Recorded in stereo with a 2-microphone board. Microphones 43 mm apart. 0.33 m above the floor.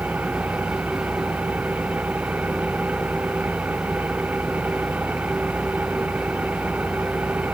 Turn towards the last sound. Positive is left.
turn(degrees=-40)  # may be behind; listen again after turning